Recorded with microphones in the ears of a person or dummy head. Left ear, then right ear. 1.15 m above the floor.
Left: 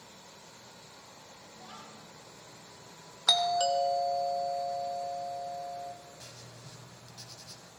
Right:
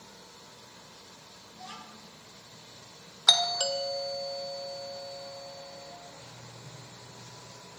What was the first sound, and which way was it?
A child speaking, 30° right (ahead or behind).